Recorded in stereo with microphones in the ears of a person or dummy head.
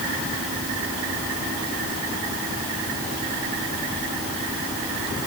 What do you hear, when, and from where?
Only background noise.